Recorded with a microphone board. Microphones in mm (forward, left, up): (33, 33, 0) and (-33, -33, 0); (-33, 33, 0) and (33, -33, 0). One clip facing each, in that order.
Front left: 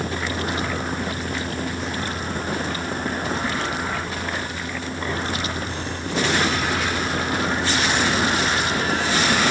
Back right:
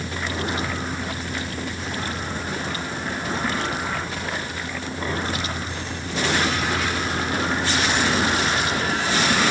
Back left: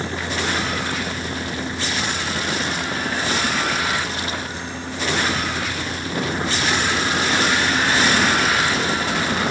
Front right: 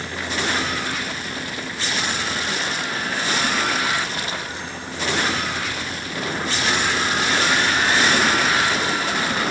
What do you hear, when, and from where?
Only background noise.